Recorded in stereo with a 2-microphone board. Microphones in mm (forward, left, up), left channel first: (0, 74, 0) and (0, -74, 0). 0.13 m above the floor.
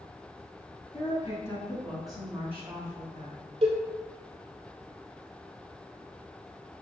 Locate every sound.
0.9 s a woman speaking: 35° left (ahead or behind), 1.8 m; by 3.5 s 40° right (ahead or behind), 1.9 m
3.6 s a cowbell: 40° right (ahead or behind), 1.0 m